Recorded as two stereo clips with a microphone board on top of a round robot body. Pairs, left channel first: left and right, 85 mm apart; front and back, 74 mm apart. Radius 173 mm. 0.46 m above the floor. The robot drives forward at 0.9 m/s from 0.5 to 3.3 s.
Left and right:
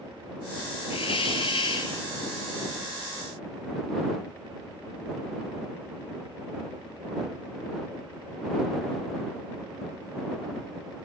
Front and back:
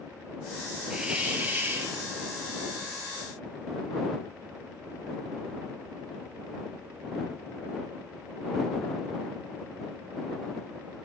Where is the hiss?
100° left, 3 m; by 2.0 s 115° left, 3 m.